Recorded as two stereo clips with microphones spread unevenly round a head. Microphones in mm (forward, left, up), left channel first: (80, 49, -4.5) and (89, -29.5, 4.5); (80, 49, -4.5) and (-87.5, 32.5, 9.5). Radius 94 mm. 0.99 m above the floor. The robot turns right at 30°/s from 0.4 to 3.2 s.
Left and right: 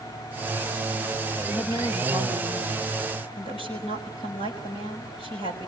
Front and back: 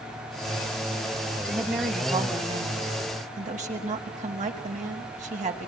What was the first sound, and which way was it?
A woman speaking, 90° left.